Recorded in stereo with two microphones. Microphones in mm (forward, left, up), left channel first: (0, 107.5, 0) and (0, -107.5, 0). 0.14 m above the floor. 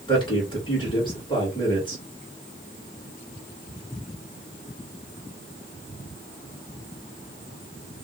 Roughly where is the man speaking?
Left.